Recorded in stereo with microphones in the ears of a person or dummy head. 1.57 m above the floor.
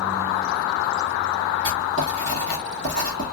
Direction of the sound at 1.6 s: 50° right (ahead or behind).